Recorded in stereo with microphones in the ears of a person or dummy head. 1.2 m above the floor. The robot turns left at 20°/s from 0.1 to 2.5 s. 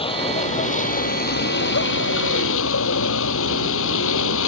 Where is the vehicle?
155° left; by 4.5 s 110° left.